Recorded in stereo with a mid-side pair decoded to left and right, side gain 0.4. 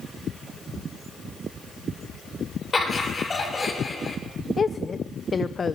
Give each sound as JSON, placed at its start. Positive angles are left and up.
{"t": 2.7, "sound": "laughter", "azimuth_deg": 35, "distance_m": 6.0}
{"t": 4.6, "sound": "a woman speaking", "azimuth_deg": 40, "distance_m": 0.8}